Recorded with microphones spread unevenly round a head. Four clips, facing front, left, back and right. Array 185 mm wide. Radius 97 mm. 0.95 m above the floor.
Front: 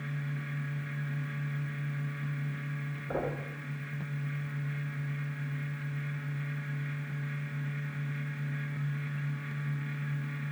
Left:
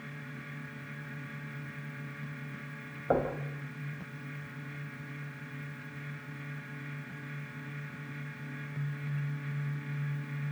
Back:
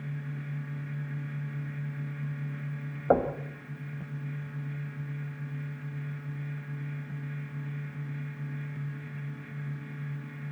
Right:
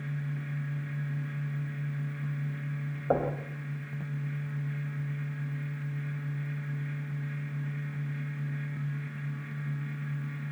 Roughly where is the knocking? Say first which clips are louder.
Right 1 dB, back 10 dB; behind.